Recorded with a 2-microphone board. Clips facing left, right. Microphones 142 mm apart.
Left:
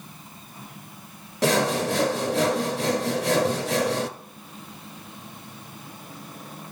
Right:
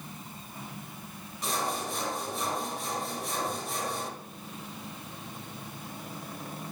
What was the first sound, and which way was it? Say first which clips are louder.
Sawing: left 11 dB; 75° left (ahead or behind).